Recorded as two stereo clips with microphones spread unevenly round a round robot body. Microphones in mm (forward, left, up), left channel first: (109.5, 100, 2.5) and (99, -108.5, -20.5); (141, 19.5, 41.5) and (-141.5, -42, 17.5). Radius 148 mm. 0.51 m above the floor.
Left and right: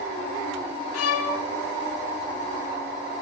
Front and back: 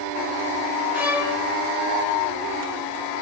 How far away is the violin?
About 4 m.